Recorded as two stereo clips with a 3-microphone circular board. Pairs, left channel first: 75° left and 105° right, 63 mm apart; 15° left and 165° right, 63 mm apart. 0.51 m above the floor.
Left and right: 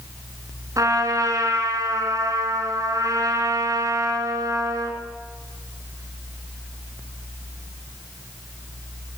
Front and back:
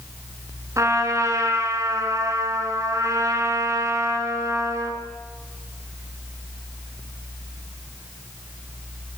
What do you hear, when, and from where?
0.8 s a trumpet: 130° right, 5 m